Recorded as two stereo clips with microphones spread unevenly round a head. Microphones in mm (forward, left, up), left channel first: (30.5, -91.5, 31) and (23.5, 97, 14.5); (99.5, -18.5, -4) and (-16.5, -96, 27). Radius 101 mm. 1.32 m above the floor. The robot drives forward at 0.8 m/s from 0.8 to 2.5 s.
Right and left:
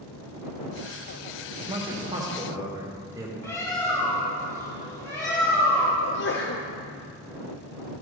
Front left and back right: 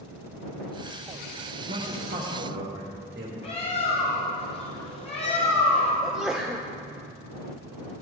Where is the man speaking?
160° left, 1.6 m; by 3.3 s 165° left, 2.5 m.